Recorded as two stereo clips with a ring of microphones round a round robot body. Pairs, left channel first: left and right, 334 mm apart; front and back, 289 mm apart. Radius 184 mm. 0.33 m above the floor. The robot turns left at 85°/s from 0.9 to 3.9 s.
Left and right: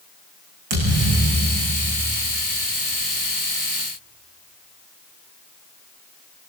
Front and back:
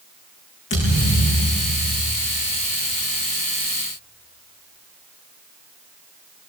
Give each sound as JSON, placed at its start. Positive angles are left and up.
{"t": 0.7, "sound": "a thud", "azimuth_deg": -70, "distance_m": 8.5}